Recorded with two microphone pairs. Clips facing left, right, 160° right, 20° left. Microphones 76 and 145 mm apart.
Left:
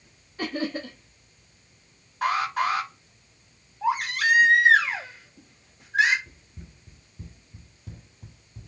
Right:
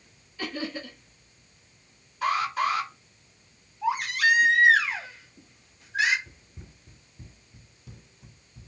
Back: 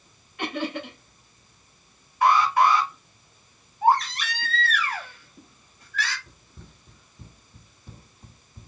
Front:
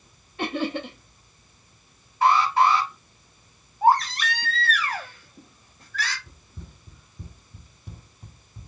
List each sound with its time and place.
0.4 s laughter: 65° left, 0.8 m
2.2 s an alarm: 75° left, 2.5 m
3.8 s a baby crying: 70° left, 1.7 m
6.3 s running footsteps: 55° right, 0.7 m; by 8.7 s 90° left, 1.3 m